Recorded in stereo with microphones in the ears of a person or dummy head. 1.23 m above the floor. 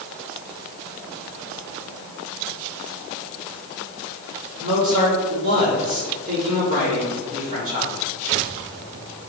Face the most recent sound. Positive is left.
turn(degrees=-45)  # may be behind; listen again after turning